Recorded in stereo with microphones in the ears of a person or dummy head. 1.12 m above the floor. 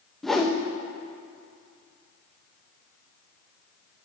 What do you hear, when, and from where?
0.2 s a whoosh: centre (ahead or behind), 0.7 m